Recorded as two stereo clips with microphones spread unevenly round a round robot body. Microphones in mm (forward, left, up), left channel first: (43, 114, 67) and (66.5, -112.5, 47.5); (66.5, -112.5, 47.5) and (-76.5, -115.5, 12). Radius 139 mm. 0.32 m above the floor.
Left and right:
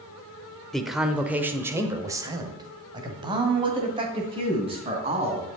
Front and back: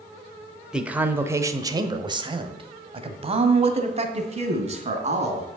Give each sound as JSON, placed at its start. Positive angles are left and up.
{"t": 0.7, "sound": "a man speaking", "azimuth_deg": -165, "distance_m": 1.0}